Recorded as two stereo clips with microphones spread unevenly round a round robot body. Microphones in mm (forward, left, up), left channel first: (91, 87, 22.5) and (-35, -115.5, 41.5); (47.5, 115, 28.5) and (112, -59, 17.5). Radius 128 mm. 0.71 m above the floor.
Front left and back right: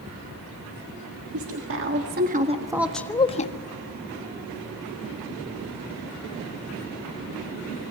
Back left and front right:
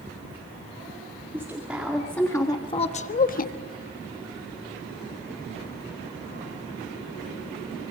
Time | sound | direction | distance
1.3 | a woman speaking | 150° right | 2.5 m